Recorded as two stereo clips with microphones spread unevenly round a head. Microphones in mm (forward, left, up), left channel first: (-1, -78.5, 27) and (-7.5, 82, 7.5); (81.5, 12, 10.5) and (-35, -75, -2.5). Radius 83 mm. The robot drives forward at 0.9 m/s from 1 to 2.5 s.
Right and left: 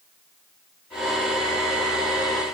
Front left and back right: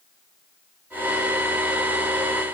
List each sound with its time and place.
Only background noise.